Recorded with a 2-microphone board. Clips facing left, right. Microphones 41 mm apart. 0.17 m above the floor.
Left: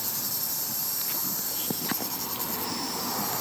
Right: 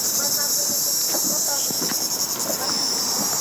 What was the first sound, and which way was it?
An insect, 85° right.